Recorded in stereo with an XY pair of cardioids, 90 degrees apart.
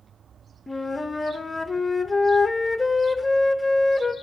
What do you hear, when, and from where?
0.7 s a flute: 25° left, 0.5 m